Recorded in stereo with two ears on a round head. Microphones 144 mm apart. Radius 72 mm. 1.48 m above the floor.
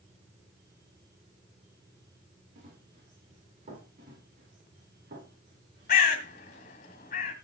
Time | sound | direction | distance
2.5 | running footsteps | 55° right (ahead or behind) | 7 m
4.0 | running footsteps | 55° right (ahead or behind) | 5.5 m
5.9 | a bird | 45° left (ahead or behind) | 2 m